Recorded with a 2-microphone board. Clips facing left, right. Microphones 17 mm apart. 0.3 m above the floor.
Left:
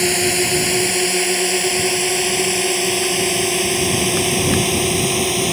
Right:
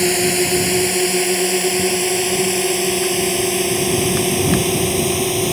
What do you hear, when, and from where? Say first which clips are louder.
0.0 s a drone: right 1 dB; 10° left (ahead or behind); by 5.5 s 15° left (ahead or behind)